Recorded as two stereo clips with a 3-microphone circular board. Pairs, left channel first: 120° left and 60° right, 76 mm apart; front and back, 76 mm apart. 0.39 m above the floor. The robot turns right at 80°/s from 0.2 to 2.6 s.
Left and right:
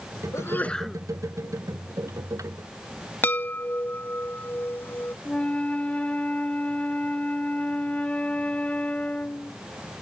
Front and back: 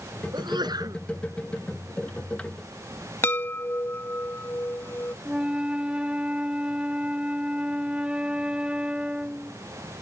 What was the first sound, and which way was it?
A sneeze, 165° left.